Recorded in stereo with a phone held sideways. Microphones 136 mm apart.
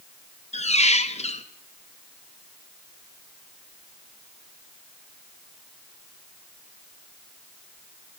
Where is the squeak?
55° left (ahead or behind), 0.6 m.